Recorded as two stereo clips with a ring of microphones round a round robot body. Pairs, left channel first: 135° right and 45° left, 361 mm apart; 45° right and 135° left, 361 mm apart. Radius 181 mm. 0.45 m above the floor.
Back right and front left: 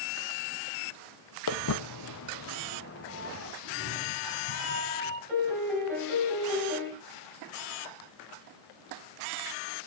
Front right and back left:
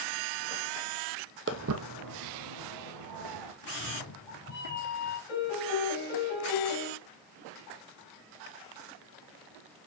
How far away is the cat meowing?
About 3.5 m.